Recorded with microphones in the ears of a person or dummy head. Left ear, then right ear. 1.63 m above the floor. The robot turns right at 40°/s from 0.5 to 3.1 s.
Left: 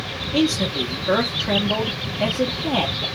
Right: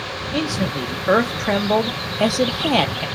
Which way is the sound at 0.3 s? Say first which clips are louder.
Left 4 dB; 165° right.